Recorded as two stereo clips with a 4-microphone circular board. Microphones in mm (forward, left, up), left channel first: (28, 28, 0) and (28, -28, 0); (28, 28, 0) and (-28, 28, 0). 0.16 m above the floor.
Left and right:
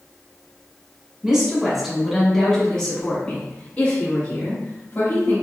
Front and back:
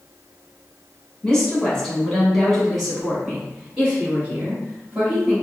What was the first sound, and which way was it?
A woman speaking, 40° right.